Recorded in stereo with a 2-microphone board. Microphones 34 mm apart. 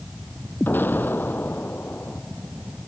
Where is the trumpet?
I don't hear a trumpet.